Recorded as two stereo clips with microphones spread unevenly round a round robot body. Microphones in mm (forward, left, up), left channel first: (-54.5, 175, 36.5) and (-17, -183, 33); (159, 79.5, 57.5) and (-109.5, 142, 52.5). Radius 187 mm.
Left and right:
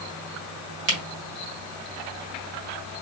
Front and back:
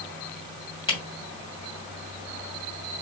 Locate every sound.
0.9 s a camera shutter: 85° right, 2 m